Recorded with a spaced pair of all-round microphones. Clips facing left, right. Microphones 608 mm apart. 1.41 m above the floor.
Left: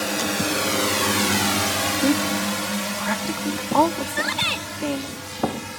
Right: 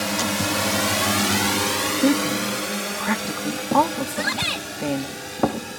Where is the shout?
20° right (ahead or behind).